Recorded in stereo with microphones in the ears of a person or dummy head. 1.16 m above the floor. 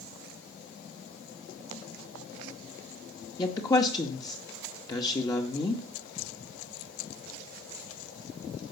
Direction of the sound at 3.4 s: 20° left (ahead or behind).